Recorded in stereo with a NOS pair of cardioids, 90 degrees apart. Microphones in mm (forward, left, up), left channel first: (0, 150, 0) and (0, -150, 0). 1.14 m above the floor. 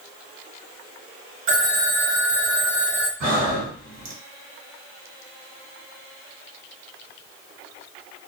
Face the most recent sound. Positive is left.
turn(degrees=-65)